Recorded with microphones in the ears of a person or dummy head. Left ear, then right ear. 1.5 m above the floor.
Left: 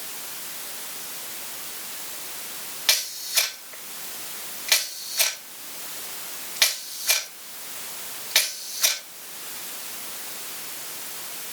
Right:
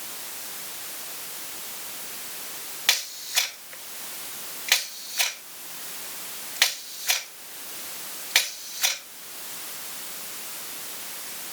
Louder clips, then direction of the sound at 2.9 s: Left 1 dB; 20° right (ahead or behind).